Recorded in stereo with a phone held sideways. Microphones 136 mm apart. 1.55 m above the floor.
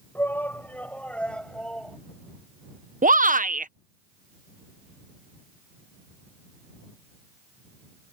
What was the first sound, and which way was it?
A shout, 15° left (ahead or behind).